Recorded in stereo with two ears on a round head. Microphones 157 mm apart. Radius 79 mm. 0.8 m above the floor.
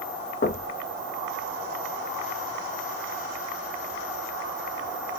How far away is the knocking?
About 0.8 m.